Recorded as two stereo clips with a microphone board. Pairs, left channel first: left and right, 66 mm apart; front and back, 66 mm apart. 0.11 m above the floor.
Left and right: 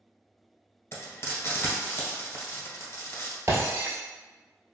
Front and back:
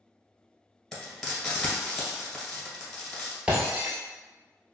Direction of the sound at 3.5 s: 115° right.